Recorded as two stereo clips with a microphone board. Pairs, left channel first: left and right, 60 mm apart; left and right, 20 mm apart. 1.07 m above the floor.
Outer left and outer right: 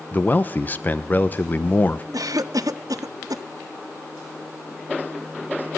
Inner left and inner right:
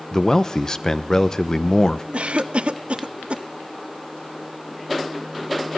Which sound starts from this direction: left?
A man speaking, at 0.1 s.